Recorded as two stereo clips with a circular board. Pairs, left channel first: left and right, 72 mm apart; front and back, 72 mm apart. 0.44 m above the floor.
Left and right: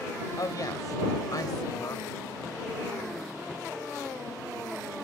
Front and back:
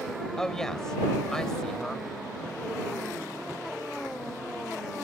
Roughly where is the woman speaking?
Left.